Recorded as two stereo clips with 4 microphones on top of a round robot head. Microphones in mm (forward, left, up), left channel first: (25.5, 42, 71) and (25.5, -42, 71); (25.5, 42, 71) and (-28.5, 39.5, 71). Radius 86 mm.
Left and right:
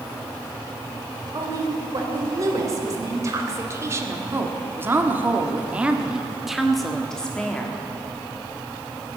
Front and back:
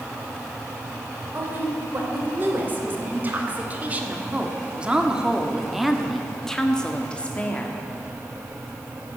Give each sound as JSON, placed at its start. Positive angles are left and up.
{"t": 1.3, "sound": "a woman speaking", "azimuth_deg": -130, "distance_m": 3.0}